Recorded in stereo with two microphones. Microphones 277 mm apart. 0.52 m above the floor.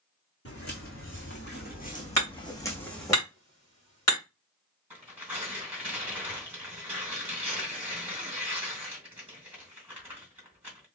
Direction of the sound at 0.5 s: 55° left (ahead or behind).